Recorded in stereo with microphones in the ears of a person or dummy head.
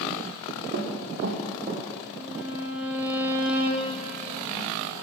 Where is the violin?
15° right (ahead or behind), 0.6 m.